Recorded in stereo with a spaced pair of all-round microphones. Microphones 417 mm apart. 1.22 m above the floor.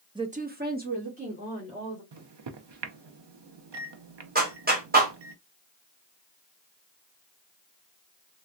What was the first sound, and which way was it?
A woman speaking, 10° right (ahead or behind).